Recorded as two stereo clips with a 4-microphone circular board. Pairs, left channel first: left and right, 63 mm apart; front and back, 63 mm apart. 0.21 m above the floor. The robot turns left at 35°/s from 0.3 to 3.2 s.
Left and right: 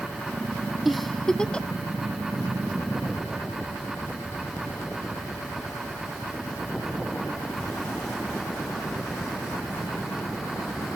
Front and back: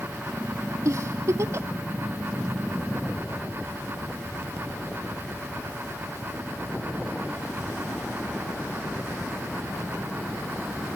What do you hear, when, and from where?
0.8 s a giggle: 175° right, 0.6 m; by 1.7 s 155° left, 0.6 m